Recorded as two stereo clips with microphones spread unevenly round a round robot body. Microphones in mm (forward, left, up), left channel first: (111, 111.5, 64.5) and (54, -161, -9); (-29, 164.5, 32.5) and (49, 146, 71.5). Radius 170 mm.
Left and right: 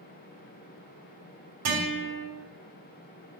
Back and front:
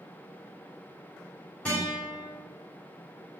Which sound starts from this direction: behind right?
A guitar, at 1.6 s.